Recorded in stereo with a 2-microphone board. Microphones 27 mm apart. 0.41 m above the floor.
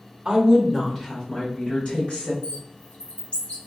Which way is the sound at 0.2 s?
20° right (ahead or behind).